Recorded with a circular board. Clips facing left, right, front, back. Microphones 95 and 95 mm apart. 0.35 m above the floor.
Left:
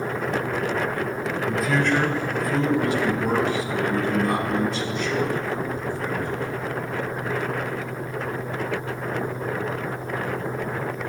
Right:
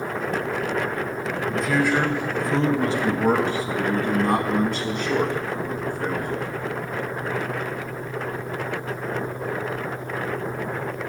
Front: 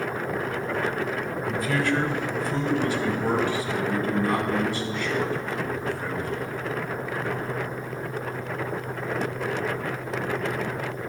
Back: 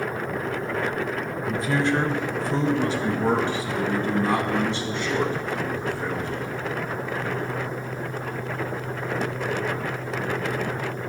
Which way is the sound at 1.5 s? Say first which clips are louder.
Right 1 dB, back 2 dB; 160° left.